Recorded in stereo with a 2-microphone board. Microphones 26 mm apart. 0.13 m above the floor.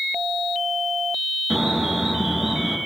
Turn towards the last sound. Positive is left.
turn(degrees=-20)  # may be behind; listen again after turning